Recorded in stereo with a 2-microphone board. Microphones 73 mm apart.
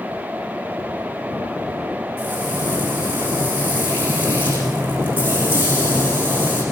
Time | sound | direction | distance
2.2 | frying | 25° right (ahead or behind) | 10 m